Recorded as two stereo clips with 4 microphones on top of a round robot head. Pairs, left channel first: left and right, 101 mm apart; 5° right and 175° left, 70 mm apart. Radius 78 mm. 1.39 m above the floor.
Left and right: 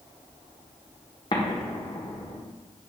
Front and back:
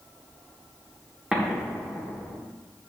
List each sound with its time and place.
1.3 s an explosion: 100° left, 1.1 m